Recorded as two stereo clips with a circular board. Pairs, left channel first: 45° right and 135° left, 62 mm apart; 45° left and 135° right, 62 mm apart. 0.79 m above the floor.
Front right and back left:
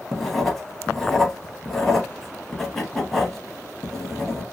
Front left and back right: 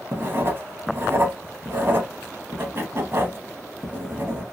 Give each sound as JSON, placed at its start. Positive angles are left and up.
{"t": 0.1, "sound": "writing", "azimuth_deg": -130, "distance_m": 0.7}